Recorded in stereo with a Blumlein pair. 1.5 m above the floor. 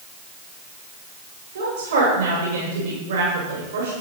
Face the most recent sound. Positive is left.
turn(degrees=-65)